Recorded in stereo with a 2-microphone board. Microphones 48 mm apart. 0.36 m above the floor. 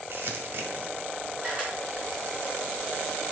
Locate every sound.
0.1 s crumpling: 50° right (ahead or behind), 1.6 m
1.4 s a camera shutter: 25° right (ahead or behind), 3.5 m